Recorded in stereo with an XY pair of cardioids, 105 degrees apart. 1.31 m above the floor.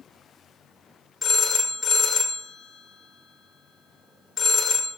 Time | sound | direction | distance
1.2 | a phone ringing | 25° left | 0.7 m